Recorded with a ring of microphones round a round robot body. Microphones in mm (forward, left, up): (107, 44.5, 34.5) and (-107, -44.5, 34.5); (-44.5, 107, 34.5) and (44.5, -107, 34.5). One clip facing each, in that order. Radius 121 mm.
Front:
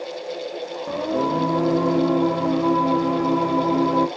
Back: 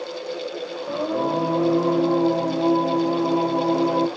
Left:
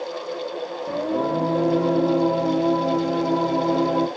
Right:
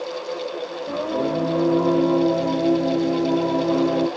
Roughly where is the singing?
Ahead left.